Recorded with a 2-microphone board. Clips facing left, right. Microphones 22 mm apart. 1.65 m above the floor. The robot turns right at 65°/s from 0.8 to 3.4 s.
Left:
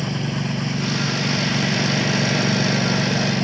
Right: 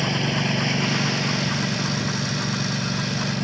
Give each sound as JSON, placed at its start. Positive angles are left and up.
{"t": 0.0, "sound": "a lawn mower", "azimuth_deg": -30}